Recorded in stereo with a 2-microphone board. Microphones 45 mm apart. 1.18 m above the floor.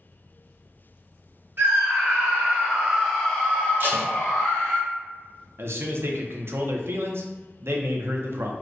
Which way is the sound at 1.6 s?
50° right (ahead or behind).